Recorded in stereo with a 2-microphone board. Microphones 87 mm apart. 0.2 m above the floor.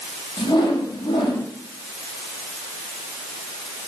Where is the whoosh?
50° left (ahead or behind), 8.5 m.